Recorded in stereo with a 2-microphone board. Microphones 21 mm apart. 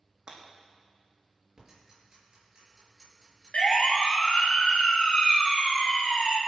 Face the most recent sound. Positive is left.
turn(degrees=40)  # may be behind; listen again after turning